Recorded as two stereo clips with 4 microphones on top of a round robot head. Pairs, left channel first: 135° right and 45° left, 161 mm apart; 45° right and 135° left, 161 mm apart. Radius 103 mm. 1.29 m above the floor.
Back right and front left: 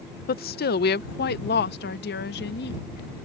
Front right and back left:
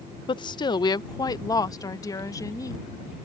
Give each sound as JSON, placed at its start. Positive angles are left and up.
{"t": 0.3, "sound": "a woman speaking", "azimuth_deg": -105}